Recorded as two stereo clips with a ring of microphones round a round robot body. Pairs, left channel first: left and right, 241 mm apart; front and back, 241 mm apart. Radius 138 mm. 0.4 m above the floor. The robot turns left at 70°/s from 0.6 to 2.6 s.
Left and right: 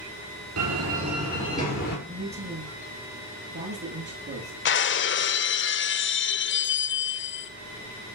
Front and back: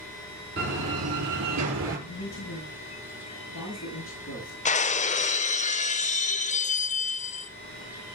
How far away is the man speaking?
About 9 m.